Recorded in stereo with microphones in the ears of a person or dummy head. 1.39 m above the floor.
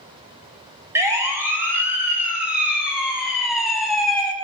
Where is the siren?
10° right (ahead or behind), 8 m; by 4.3 s 5° left (ahead or behind), 7 m.